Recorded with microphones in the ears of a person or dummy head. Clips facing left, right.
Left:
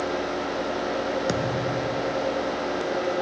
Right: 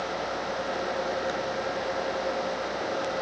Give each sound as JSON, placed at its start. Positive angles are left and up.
{"t": 1.3, "sound": "a thud", "side_deg": 55}